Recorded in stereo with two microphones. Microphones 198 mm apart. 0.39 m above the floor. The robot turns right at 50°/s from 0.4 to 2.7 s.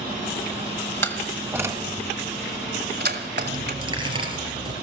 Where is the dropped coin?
25° right (ahead or behind), 3 m.